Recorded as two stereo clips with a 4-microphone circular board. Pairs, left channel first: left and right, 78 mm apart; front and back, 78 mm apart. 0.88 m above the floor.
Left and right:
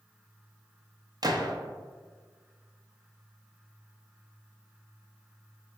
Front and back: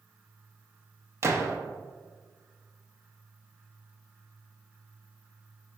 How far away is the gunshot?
About 0.5 m.